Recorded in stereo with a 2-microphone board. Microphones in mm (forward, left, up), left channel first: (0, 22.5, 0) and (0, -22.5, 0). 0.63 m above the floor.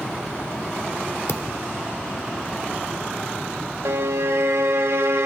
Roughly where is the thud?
Left.